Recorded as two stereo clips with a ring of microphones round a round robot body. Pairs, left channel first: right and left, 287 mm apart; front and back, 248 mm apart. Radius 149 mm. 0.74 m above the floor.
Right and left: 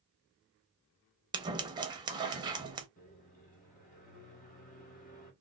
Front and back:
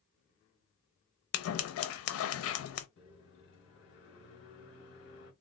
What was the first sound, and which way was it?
Scissors, 15° left.